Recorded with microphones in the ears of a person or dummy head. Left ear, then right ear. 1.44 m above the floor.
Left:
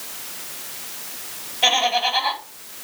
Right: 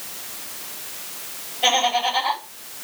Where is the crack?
No crack in this recording.